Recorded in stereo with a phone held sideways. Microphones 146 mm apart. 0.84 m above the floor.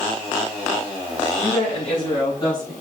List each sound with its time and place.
1.4 s a woman speaking: 50° left (ahead or behind), 5 m; by 2.7 s 30° left (ahead or behind), 5 m